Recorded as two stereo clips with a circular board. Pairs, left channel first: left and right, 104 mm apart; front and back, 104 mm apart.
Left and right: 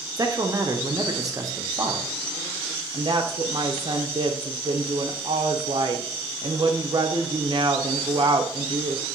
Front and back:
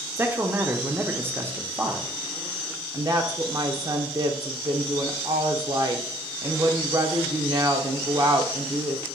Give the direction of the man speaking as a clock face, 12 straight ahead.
4 o'clock.